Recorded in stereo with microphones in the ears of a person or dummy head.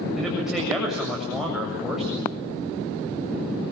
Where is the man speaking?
Centre (ahead or behind), 8 m.